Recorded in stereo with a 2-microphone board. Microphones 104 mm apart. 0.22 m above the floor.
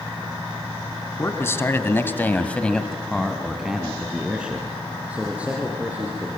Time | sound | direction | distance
1.2 | a man speaking | 25° left (ahead or behind) | 2.5 m